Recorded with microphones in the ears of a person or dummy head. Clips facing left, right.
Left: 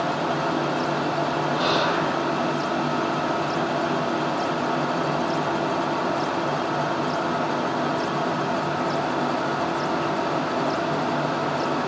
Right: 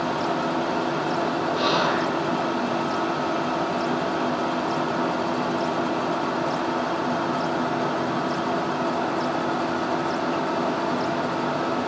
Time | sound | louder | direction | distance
1.5 | whispering | even | 50° right (ahead or behind) | 0.7 m